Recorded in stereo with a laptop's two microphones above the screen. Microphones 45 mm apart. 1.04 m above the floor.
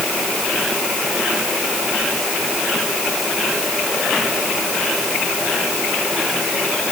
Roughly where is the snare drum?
I don't hear a snare drum.